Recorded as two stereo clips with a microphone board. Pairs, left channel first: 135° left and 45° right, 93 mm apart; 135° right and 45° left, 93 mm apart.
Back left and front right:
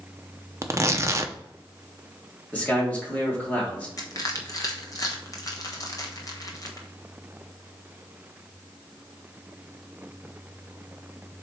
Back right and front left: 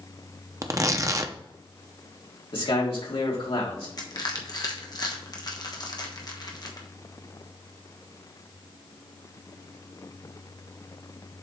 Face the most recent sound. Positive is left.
turn(degrees=-175)